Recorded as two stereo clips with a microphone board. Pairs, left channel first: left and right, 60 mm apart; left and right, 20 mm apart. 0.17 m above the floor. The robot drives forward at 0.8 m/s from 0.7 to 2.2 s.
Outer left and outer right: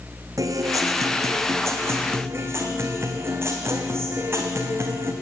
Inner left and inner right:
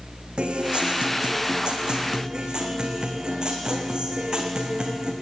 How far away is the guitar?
About 2 m.